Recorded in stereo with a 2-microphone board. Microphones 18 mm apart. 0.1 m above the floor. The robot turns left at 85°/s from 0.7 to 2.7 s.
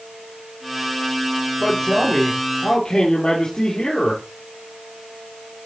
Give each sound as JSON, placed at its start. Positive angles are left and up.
{"t": 1.6, "sound": "a man speaking", "azimuth_deg": 170, "distance_m": 2.5}